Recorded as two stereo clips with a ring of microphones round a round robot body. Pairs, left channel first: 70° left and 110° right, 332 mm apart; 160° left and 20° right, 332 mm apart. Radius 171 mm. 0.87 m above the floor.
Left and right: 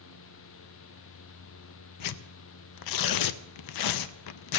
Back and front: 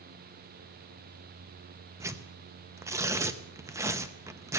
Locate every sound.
2.0 s tearing paper: 60° left, 0.5 m